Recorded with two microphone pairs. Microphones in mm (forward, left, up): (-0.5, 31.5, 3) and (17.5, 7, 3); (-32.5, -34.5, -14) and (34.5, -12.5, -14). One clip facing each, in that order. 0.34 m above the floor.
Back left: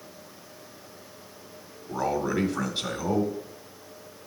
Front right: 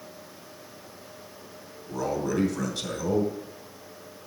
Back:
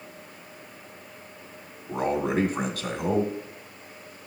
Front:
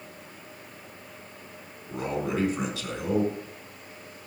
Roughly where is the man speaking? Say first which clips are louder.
Back left 1 dB, back 4 dB; behind.